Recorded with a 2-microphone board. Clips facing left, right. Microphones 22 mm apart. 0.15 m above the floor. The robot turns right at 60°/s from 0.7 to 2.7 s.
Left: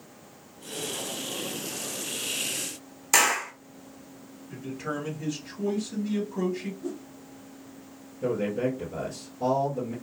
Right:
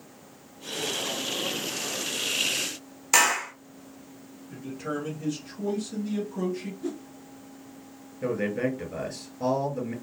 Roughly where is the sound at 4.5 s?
Centre.